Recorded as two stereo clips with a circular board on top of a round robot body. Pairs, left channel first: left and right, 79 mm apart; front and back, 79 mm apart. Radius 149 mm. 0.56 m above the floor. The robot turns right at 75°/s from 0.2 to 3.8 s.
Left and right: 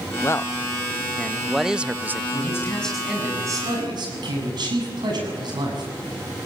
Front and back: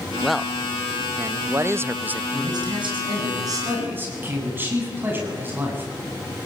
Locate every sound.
0.2 s a man speaking: 85° left, 0.7 m; by 2.2 s 125° right, 0.7 m
2.3 s a man speaking: 135° left, 7.5 m; by 5.9 s 115° right, 7.5 m